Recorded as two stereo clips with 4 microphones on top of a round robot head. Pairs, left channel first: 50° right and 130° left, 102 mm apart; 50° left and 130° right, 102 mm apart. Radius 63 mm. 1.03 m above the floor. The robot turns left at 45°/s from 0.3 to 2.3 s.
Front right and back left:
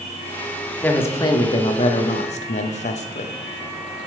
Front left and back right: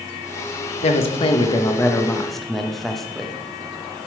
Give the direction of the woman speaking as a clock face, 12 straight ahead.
11 o'clock.